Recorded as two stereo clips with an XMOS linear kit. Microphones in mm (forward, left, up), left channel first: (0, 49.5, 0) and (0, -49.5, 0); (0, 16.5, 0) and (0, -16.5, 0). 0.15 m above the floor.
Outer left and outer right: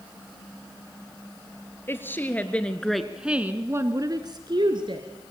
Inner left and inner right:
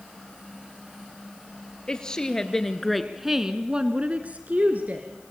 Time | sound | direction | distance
1.9 | a woman speaking | 25° left (ahead or behind) | 3 m